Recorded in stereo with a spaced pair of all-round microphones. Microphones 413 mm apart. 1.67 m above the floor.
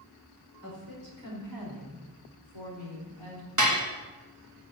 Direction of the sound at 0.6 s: 45° right (ahead or behind).